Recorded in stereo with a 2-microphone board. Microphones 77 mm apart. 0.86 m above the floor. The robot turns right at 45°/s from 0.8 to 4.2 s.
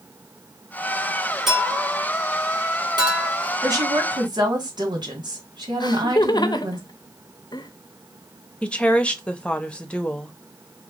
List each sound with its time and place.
1.5 s a clink: 5° right (ahead or behind), 1.8 m; by 3.3 s 85° right, 1.8 m
3.6 s a woman speaking: 55° right (ahead or behind), 2 m; by 6.8 s 70° right (ahead or behind), 2 m
5.8 s laughter: 65° left (ahead or behind), 0.7 m
8.6 s a woman speaking: 15° left (ahead or behind), 0.8 m